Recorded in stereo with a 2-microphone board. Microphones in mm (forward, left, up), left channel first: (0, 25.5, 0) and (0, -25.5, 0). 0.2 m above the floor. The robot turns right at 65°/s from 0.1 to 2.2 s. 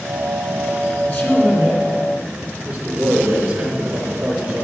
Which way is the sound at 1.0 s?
125° left.